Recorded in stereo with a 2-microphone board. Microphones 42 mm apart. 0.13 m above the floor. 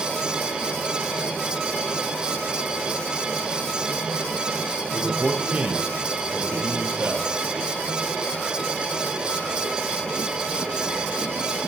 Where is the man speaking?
25° right (ahead or behind), 4 m; by 7.3 s 65° right (ahead or behind), 4 m.